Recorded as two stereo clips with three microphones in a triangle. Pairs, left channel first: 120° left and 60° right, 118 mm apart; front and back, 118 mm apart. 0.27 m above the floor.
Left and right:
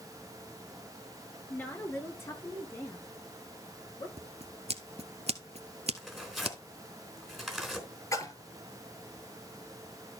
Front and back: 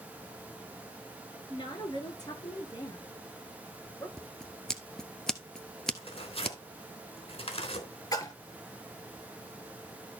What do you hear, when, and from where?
1.5 s a woman speaking: 50° left, 5.5 m; by 4.1 s 65° left, 5 m
4.2 s scissors: 85° right, 1.4 m
6.0 s tearing paper: 30° left, 3.5 m
8.1 s a splash: 60° left, 3 m